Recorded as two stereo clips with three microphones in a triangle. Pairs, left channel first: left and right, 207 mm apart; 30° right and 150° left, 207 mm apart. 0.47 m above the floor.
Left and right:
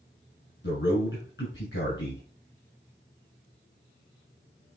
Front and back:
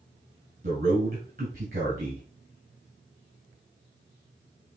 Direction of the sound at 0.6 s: 105° left.